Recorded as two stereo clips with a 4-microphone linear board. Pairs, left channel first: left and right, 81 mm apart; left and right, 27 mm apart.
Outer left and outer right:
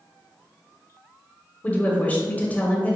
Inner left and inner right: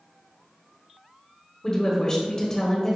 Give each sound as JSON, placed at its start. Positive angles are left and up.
{"t": 1.6, "sound": "a woman speaking", "side_deg": 20, "distance_m": 1.0}